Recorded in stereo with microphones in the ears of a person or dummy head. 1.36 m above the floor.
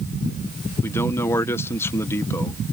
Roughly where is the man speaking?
Left.